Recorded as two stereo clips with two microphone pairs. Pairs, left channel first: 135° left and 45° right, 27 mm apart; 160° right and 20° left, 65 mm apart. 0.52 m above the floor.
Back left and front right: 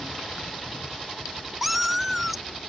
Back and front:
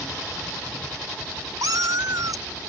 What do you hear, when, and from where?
1.6 s a cat meowing: 40° left